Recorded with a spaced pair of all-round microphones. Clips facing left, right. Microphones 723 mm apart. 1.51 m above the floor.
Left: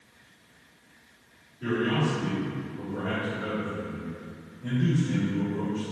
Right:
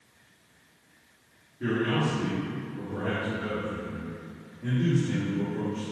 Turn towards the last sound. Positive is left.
turn(degrees=-80)